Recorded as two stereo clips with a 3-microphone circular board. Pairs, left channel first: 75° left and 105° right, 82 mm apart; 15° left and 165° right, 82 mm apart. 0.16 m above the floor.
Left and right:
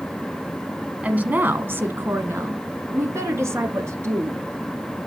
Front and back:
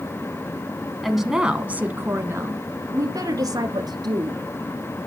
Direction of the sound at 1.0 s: 70° right.